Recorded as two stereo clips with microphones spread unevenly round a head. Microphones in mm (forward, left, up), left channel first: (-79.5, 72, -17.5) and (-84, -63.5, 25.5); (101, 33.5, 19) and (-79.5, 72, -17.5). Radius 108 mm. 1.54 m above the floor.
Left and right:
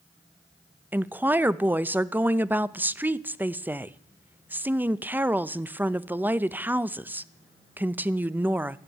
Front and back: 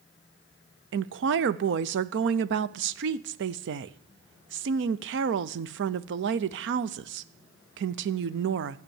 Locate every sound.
0.9 s a woman speaking: 175° right, 0.5 m